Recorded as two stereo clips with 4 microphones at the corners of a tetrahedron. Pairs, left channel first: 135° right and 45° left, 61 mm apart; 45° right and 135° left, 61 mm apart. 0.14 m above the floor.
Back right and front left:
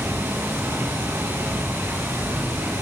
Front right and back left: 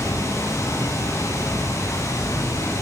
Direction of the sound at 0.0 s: 5° right.